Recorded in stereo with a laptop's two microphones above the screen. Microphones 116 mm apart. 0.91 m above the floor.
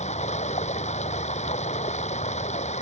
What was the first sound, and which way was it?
Running water, 75° left (ahead or behind).